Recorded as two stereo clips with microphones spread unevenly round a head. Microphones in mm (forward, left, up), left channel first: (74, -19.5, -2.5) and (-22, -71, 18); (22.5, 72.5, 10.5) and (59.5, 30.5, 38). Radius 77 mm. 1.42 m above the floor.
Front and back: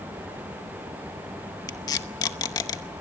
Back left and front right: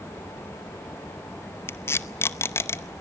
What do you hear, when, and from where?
1.7 s tape being pulled: 75° left, 0.7 m